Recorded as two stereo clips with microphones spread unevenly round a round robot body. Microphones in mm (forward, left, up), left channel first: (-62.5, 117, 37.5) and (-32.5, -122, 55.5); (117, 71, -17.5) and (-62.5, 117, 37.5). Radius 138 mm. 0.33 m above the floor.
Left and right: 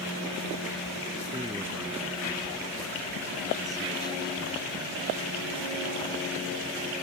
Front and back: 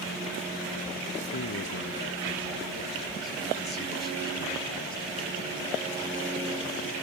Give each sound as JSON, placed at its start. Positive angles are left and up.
{"t": 1.3, "sound": "a man speaking", "azimuth_deg": -5}